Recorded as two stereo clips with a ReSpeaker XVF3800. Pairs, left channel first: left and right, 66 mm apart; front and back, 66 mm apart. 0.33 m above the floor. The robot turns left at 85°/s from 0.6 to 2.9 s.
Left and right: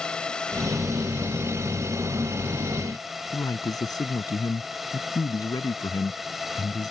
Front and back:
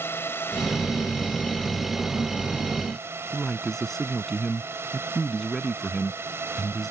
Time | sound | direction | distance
0.0 | a drone | 20° left | ?
3.3 | a man speaking | 85° left | ?